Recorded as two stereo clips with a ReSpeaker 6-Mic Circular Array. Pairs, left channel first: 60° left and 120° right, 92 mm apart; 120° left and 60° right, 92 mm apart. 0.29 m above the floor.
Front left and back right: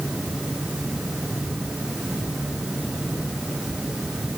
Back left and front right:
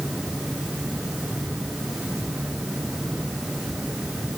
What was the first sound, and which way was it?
Only background noise.